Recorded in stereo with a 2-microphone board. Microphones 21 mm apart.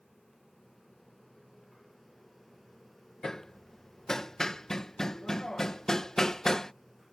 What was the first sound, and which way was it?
Hammering, 30° left (ahead or behind).